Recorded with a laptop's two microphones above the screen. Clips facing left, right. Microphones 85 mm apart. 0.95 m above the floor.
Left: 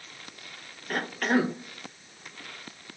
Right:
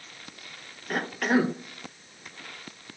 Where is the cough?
5° right (ahead or behind), 0.6 m.